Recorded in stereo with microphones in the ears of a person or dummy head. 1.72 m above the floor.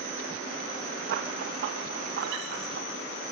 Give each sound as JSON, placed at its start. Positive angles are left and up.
{"t": 1.1, "sound": "running footsteps", "side_deg": -65, "distance_m": 4.5}